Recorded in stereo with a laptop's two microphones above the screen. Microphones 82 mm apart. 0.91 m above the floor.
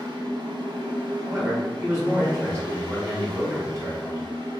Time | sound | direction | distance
0.0 | a fan | 75° right (ahead or behind) | 0.9 m
1.2 | a man speaking | 35° right (ahead or behind) | 1.5 m